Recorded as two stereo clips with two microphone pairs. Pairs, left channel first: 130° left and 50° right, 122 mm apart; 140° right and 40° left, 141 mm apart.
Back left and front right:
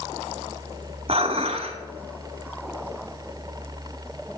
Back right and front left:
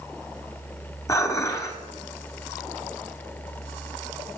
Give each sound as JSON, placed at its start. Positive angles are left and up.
{"t": 1.1, "sound": "dishes clattering", "azimuth_deg": -75, "distance_m": 1.3}